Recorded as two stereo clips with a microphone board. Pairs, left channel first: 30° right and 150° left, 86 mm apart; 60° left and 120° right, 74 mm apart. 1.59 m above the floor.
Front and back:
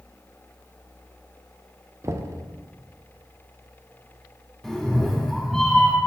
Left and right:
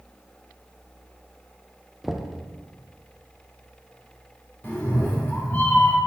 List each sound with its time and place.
2.0 s knocking: 150° left, 0.6 m
4.6 s a cat meowing: 50° left, 1.2 m